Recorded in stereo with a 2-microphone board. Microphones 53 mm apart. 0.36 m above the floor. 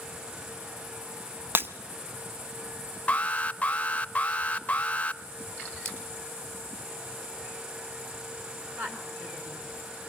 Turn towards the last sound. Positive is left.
turn(degrees=-35)  # may be behind; listen again after turning